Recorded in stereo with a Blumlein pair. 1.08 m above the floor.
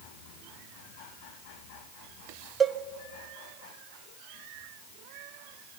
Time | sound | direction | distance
2.6 | a cowbell | 20° right | 0.8 m